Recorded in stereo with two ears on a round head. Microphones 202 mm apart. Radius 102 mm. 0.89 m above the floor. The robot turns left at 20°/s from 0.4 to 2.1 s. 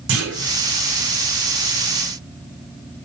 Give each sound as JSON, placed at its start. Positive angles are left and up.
{"t": 0.1, "sound": "a clunk", "side_deg": -65, "distance_m": 5.5}